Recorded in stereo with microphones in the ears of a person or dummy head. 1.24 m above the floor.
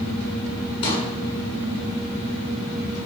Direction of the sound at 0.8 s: 30° left (ahead or behind).